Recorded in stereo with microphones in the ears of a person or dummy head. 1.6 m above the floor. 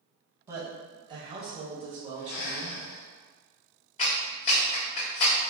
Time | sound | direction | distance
0.5 | a woman speaking | 10° right (ahead or behind) | 1.4 m
2.2 | breathing | 60° left (ahead or behind) | 0.8 m
4.0 | a clap | 30° left (ahead or behind) | 1.6 m